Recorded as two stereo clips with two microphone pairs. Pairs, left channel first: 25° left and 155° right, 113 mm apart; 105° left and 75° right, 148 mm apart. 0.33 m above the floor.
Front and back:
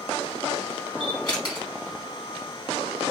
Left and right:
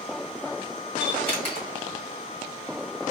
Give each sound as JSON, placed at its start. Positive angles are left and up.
{"t": 1.0, "sound": "a camera shutter", "azimuth_deg": 65, "distance_m": 2.0}